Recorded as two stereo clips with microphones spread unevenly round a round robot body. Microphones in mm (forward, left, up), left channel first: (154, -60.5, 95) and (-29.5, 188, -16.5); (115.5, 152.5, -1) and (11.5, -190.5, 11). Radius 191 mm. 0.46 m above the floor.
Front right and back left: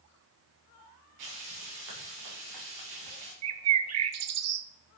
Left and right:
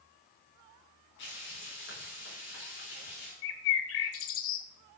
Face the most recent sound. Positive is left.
turn(degrees=125)